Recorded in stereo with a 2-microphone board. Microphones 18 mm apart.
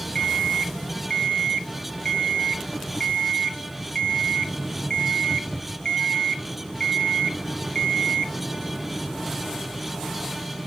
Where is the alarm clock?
50° left (ahead or behind), 0.8 m.